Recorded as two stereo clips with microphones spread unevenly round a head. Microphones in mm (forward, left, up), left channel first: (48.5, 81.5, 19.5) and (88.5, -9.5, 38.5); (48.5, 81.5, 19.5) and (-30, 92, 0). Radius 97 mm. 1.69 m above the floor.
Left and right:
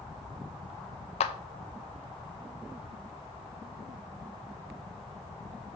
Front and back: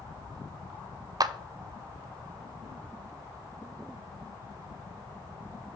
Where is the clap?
130° left, 0.5 m.